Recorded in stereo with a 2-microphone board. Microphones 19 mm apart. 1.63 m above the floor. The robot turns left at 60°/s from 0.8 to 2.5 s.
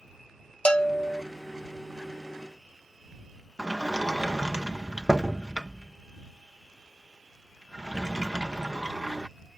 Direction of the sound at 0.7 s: 55° left (ahead or behind).